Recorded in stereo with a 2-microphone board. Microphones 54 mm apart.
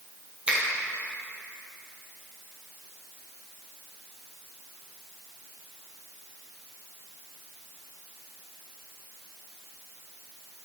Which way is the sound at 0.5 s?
20° right (ahead or behind).